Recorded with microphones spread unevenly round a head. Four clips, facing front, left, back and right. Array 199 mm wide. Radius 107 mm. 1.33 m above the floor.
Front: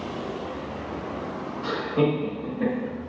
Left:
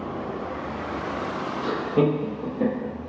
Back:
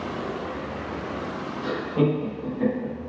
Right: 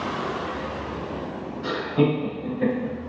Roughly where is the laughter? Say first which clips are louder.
Even, even; behind left.